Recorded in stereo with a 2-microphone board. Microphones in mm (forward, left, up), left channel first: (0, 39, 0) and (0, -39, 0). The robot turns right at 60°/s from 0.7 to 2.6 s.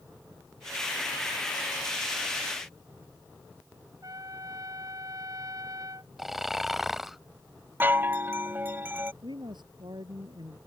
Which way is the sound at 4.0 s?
50° right (ahead or behind).